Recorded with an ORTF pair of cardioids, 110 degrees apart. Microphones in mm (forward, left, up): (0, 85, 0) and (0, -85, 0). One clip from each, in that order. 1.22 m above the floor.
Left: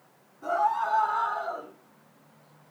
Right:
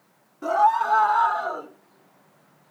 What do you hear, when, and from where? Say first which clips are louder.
0.4 s a scream: right 6 dB; 65° right, 2.5 m; by 1.7 s 60° right, 1.5 m